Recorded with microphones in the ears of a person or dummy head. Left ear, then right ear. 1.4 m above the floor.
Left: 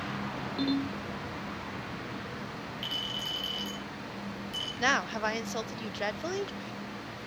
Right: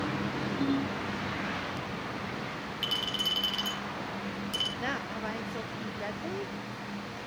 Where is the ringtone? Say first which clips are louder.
Left 1 dB; 65° left (ahead or behind), 3.5 m.